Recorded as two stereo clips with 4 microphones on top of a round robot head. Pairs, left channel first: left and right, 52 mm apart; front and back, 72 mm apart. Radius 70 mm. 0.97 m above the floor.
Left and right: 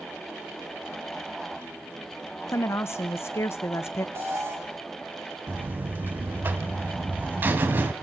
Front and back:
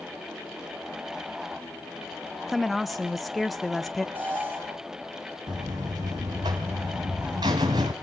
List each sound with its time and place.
2.5 s a woman speaking: 90° left, 0.8 m
4.2 s an alarm: 120° right, 4 m
5.5 s a buzzer: 140° right, 1.6 m